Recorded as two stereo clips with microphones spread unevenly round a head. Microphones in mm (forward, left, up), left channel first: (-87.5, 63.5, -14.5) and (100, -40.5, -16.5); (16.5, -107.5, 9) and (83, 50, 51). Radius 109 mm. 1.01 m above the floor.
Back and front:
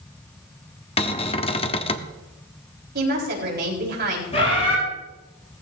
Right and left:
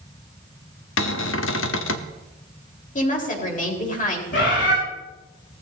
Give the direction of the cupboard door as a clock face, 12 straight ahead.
5 o'clock.